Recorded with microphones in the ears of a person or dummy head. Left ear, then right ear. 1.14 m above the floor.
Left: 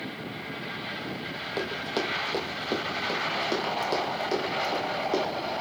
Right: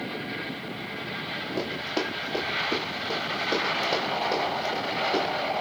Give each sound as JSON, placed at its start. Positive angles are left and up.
{"t": 1.6, "sound": "running footsteps", "side_deg": 65, "distance_m": 2.5}